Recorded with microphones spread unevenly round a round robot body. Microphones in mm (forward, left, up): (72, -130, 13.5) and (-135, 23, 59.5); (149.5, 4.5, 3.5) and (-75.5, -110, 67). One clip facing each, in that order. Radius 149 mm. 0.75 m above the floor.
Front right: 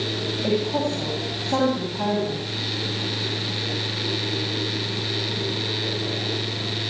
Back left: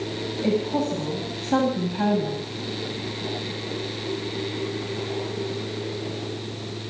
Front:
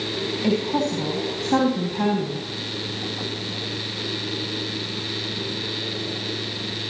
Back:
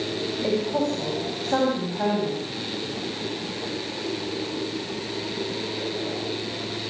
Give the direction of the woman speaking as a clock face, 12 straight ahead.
9 o'clock.